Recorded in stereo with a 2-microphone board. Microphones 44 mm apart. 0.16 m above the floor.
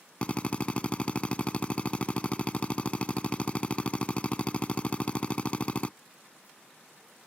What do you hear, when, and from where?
0.2 s a drill: 30° left (ahead or behind)